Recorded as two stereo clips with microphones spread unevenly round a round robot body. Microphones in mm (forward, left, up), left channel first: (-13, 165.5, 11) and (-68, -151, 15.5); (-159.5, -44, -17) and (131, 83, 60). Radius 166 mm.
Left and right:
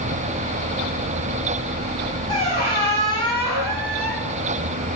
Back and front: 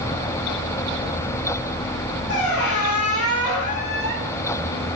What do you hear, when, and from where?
2.3 s a squeak: 115° right, 1.9 m